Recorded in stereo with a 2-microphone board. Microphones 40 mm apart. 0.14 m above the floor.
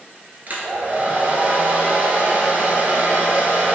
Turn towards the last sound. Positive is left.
turn(degrees=-50)  # may be behind; listen again after turning